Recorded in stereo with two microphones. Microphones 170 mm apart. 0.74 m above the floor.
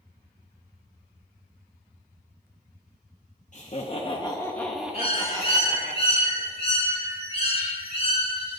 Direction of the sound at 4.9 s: 35° left (ahead or behind).